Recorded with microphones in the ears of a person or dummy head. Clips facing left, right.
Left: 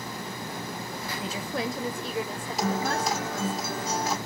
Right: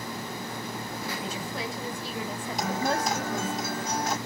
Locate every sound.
1.2 s a woman speaking: 50° left (ahead or behind), 0.9 m; by 3.6 s 35° right (ahead or behind), 1.5 m
2.6 s a guitar: 5° left (ahead or behind), 2.5 m